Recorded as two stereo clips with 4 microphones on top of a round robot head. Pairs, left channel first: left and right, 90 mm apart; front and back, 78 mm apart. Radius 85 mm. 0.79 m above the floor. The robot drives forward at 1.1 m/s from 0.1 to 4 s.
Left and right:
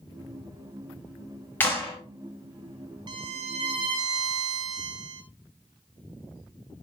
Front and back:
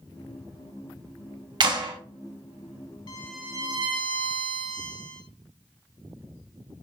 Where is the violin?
50° right, 0.6 m; by 5.2 s 150° right, 0.8 m.